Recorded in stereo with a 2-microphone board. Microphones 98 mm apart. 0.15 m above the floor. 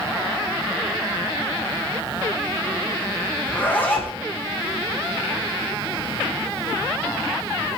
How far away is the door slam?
I don't hear a door slam.